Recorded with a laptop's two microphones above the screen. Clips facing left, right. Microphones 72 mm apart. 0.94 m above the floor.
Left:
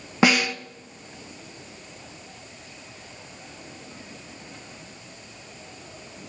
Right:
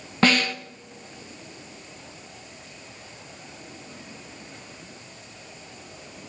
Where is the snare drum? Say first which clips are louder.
Left 1 dB; 10° left (ahead or behind), 0.8 m.